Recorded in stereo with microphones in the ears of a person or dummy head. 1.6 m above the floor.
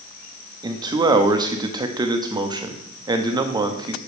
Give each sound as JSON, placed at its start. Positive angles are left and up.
{"t": 0.6, "sound": "a man speaking", "side_deg": -20, "distance_m": 0.8}